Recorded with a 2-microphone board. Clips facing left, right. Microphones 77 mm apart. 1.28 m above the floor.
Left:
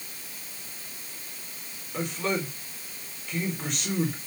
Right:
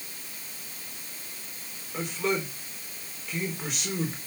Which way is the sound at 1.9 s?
5° right (ahead or behind).